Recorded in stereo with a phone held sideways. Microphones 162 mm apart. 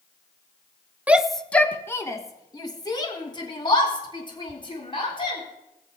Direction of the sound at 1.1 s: 10° right (ahead or behind).